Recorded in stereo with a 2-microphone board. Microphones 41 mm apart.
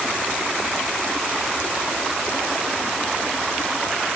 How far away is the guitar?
No guitar in this recording.